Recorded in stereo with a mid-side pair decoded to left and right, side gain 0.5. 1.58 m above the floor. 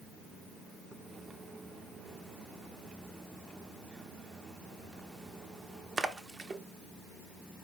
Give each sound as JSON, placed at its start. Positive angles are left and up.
{"t": 0.9, "sound": "a splash", "azimuth_deg": -35, "distance_m": 0.5}